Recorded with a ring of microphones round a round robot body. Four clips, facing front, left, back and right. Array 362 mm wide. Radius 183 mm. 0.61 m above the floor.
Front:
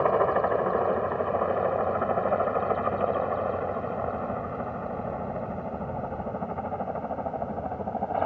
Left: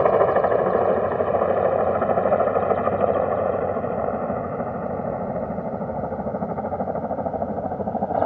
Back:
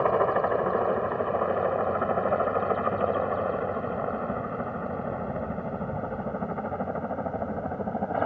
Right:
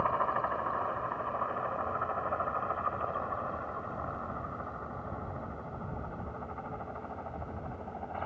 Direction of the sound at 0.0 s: 95° left.